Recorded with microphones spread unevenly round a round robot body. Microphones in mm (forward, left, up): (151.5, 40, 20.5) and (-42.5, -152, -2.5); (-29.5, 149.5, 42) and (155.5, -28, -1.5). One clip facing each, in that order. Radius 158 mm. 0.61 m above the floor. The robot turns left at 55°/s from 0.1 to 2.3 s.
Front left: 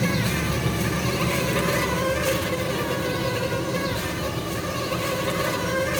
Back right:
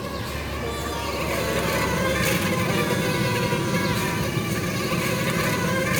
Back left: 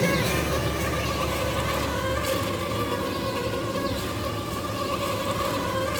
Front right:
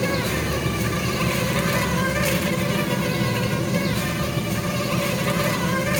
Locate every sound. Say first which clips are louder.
0.0 s an insect: front left 6 dB, front right 1 dB; 35° left, 4.5 m; by 6.0 s 85° right, 4.5 m